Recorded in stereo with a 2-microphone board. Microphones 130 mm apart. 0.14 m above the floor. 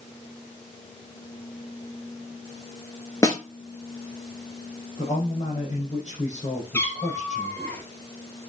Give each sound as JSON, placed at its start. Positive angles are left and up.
{"t": 3.2, "sound": "a snare drum", "side_deg": 25, "distance_m": 1.1}
{"t": 5.0, "sound": "a man speaking", "side_deg": 55, "distance_m": 4.5}
{"t": 6.7, "sound": "a cat meowing", "side_deg": 15, "distance_m": 1.9}